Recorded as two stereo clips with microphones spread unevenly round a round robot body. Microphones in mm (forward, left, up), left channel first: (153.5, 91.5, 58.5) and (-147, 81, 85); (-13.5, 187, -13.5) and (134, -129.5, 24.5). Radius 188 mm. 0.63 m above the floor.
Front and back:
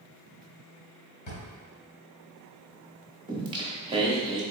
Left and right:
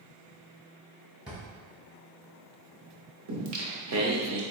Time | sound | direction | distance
1.3 | a drawer | 25° left | 1.5 m
3.3 | singing | 105° right | 0.7 m